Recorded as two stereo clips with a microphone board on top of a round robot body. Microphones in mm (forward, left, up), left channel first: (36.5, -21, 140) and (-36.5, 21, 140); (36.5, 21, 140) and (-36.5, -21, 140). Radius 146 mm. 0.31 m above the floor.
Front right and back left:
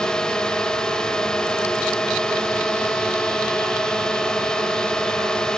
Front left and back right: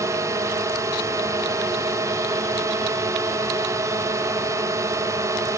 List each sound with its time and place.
0.0 s a drone: 110° right